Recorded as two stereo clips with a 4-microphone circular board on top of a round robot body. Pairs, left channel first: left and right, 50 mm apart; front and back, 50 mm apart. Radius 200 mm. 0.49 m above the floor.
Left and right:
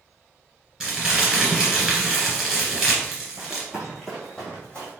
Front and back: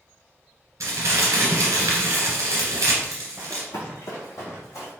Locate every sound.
0.8 s crumpling: 165° right, 1.6 m
3.4 s running footsteps: 85° right, 0.5 m; by 4.9 s 25° left, 1.8 m